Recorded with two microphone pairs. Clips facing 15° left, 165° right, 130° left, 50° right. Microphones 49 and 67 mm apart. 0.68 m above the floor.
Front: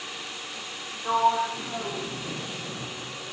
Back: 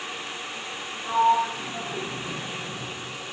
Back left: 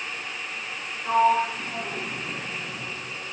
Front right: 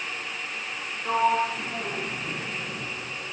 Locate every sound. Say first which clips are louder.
1.1 s a sliding door: back 2 dB, back left 3 dB; 35° left, 0.9 m